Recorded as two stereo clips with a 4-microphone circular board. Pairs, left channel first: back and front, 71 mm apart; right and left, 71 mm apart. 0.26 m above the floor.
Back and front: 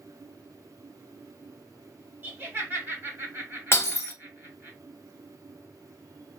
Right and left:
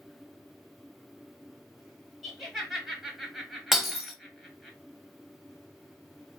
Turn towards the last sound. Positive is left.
turn(degrees=175)